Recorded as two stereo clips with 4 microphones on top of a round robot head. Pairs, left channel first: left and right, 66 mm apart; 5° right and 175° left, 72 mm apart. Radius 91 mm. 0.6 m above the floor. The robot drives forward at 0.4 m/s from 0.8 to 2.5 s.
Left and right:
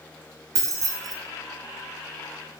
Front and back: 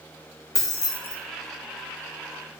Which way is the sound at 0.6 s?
50° right.